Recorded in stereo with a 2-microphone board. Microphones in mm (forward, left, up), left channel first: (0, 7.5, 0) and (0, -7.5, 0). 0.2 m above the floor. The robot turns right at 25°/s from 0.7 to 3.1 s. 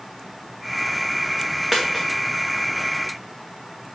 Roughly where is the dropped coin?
Centre.